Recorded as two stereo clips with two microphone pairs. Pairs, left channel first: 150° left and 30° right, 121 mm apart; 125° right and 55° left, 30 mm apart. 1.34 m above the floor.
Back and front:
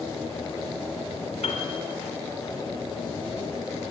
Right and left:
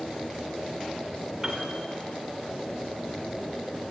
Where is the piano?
125° left, 3 m.